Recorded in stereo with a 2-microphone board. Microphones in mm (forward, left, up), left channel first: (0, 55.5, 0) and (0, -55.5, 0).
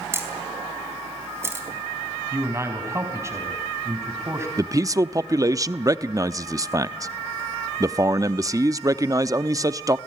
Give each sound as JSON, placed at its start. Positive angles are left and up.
{"t": 0.1, "sound": "a camera shutter", "side_deg": -20, "distance_m": 4.0}
{"t": 2.3, "sound": "a man speaking", "side_deg": -25, "distance_m": 4.5}
{"t": 4.6, "sound": "a man speaking", "side_deg": -30, "distance_m": 0.6}